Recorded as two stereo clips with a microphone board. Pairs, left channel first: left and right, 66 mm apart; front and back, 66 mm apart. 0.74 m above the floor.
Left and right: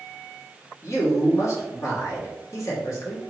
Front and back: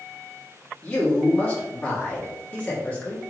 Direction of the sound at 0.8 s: 70° left.